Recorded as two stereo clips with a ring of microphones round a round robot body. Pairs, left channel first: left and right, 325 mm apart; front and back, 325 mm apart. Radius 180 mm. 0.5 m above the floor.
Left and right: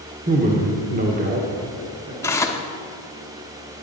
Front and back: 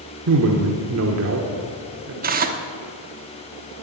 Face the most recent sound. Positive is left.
turn(degrees=160)